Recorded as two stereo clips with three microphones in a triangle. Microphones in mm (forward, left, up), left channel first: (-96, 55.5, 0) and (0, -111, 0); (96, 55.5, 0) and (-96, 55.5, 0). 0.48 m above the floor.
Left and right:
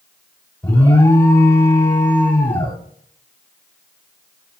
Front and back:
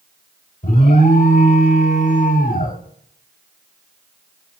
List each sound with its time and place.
0.6 s an alarm: 45° left, 0.9 m